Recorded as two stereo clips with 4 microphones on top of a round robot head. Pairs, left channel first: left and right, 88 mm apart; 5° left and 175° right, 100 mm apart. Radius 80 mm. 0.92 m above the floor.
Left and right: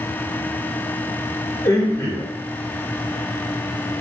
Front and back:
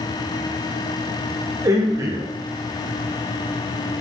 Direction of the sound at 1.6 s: 135° left.